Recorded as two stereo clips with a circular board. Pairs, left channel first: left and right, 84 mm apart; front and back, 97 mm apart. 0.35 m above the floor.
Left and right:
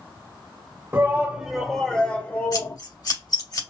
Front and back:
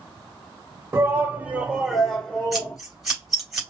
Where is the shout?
135° right, 1.3 m; by 2.8 s 65° left, 1.4 m.